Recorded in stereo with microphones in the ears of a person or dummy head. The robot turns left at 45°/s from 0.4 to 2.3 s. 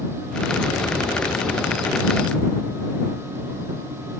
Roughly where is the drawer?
No drawer in this recording.